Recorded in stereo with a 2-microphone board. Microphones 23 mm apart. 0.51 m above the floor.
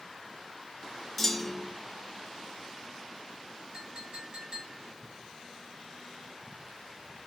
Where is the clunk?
5° left (ahead or behind), 1.2 m.